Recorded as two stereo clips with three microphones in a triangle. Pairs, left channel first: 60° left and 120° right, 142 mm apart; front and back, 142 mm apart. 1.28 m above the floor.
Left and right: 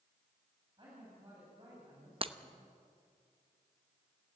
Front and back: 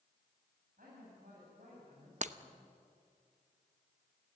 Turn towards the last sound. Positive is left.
turn(degrees=-160)